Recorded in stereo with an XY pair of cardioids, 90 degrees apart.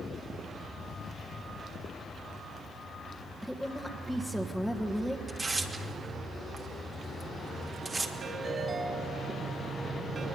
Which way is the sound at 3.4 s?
Straight ahead.